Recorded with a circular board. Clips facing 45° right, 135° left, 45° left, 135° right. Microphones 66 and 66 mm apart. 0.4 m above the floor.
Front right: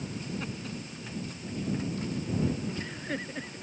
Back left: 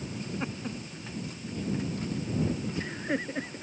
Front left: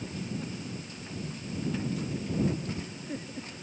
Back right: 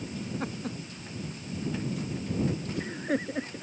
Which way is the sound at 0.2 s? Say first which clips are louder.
Back left 2 dB, back right 5 dB; 160° right.